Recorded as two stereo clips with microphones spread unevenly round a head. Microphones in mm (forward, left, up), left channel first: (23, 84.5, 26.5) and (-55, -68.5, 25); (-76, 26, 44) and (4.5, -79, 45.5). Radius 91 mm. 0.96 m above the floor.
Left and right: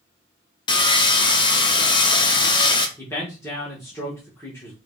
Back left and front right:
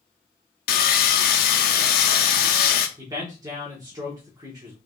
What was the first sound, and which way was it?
Sawing, 130° left.